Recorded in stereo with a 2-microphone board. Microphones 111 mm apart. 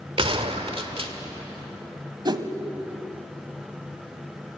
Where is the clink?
No clink in this recording.